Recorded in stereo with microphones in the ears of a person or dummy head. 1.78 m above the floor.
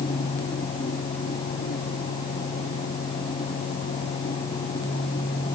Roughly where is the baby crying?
No baby crying in this recording.